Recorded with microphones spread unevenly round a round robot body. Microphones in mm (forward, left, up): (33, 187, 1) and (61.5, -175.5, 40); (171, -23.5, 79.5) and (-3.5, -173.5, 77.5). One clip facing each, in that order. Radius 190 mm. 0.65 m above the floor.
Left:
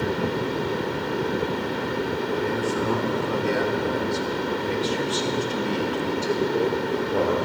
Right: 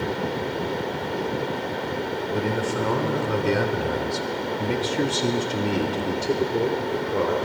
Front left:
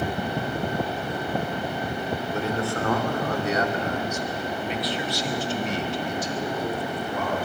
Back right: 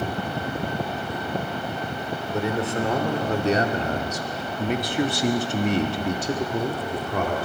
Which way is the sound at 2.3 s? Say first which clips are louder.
Right 1 dB, back right 4 dB; 65° right.